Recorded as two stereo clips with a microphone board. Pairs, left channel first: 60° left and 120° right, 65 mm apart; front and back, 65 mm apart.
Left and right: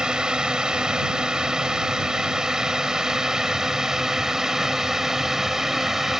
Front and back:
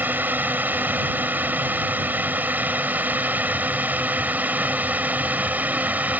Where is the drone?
175° left; by 6.2 s 165° left.